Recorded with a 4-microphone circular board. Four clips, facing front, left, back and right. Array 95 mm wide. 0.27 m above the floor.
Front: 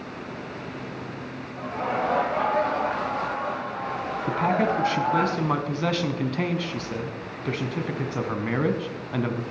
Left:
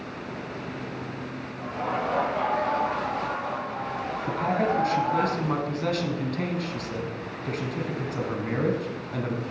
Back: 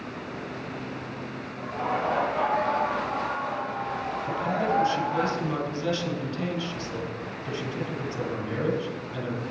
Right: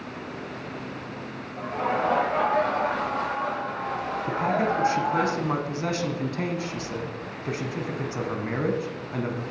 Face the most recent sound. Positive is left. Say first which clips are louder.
# even, front 4 dB
turn(degrees=-15)